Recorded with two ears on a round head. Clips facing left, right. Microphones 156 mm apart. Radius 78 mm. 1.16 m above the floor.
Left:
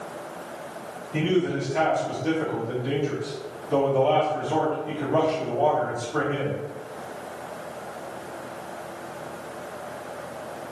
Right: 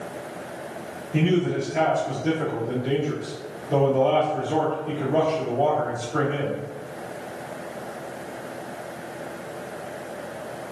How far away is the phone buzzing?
No phone buzzing in this recording.